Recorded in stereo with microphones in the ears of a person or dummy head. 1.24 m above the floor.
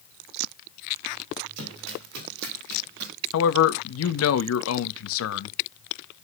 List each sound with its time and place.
1.6 s running footsteps: 65° right (ahead or behind), 4 m; by 3.1 s 55° right (ahead or behind), 3.5 m
3.3 s a man speaking: 80° left, 1.1 m